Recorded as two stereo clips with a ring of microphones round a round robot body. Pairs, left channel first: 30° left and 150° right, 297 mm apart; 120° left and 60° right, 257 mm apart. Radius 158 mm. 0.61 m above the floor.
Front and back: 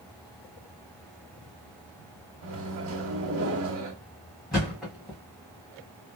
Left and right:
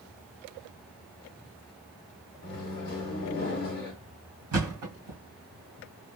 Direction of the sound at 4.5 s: 60° right.